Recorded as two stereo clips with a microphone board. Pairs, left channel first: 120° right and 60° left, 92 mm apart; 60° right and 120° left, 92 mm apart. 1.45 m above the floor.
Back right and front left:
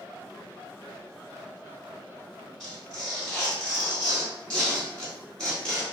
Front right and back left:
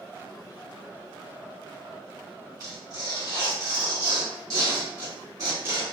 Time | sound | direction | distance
2.6 | tearing paper | 160° left | 1.5 m